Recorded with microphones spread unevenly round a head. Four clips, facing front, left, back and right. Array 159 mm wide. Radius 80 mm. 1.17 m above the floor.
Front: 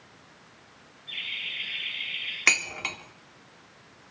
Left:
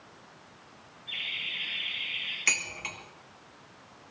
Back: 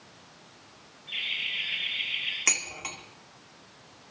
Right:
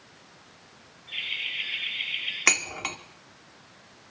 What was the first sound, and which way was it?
Laughter, 120° left.